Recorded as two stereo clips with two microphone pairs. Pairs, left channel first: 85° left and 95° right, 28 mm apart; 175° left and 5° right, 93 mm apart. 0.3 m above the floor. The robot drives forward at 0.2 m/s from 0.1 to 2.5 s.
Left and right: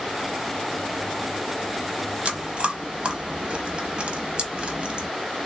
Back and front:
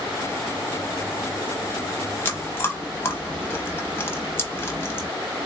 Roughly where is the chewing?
Behind right.